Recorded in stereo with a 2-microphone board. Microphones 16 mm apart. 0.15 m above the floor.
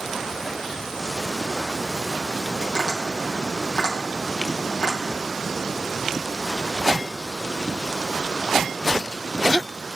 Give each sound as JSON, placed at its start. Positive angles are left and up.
{"t": 2.6, "sound": "tapping", "side_deg": 75, "distance_m": 3.0}